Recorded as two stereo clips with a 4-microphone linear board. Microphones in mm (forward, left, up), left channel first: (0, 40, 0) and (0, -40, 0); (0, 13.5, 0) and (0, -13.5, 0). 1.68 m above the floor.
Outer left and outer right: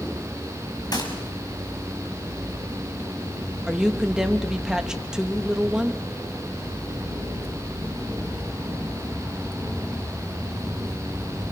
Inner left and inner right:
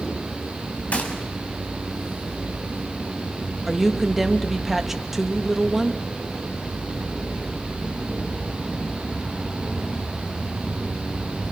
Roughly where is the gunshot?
Left.